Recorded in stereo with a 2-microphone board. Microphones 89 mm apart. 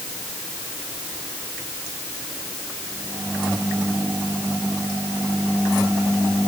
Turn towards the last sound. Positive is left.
No sound to turn to.